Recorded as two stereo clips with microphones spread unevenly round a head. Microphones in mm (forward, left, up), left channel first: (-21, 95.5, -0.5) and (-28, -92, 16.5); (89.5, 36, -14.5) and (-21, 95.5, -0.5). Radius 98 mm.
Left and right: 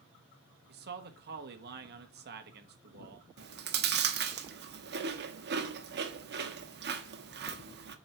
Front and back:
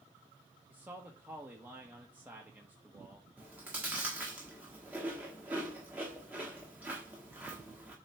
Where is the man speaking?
125° right, 1.4 m.